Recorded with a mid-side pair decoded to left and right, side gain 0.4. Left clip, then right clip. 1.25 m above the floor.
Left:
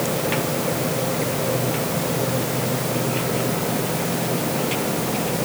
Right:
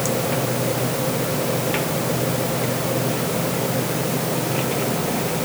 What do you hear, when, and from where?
Only background noise.